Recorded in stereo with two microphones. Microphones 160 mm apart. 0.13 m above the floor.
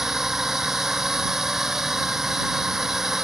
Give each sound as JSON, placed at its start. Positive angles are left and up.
{"t": 0.0, "sound": "a drone", "side_deg": 0}